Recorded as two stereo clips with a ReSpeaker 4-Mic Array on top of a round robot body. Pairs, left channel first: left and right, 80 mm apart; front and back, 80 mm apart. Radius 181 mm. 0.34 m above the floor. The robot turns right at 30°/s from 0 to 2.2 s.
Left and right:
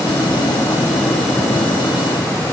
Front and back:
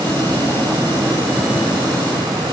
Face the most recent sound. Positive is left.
No sound to turn to.